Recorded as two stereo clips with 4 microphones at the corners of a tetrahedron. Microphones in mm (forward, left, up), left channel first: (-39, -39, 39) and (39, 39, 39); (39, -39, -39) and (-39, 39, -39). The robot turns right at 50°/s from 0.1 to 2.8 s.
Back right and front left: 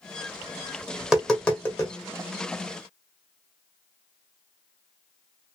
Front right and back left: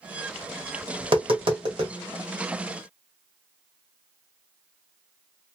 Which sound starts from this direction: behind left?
Tapping, at 1.0 s.